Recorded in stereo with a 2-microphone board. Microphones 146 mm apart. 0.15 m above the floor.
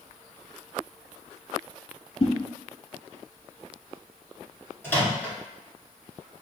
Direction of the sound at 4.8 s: 15° left (ahead or behind).